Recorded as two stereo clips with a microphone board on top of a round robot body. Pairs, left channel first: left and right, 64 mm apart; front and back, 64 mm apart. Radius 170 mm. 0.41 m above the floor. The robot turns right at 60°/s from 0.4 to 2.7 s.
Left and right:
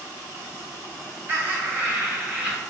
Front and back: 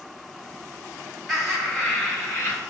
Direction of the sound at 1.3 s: 90° right.